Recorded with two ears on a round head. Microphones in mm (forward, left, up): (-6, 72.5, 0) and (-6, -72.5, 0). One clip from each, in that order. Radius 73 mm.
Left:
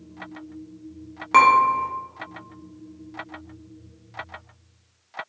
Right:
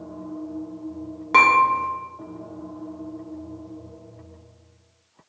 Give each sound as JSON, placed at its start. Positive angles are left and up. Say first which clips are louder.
{"t": 1.3, "sound": "dishes clattering", "louder": "even", "side_deg": 10, "distance_m": 0.6}